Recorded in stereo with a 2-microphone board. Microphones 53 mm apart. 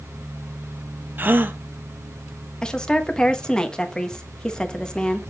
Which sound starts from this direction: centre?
A woman speaking, at 2.6 s.